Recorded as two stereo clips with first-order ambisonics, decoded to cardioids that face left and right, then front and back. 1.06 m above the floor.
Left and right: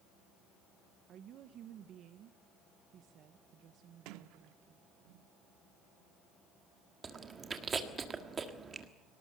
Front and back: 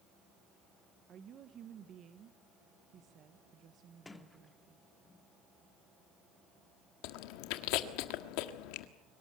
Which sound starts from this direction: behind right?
A woman speaking, at 1.1 s.